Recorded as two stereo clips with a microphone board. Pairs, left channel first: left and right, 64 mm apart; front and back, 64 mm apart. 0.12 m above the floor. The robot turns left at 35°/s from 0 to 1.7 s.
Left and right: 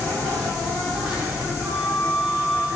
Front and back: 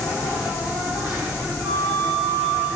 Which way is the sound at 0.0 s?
25° left.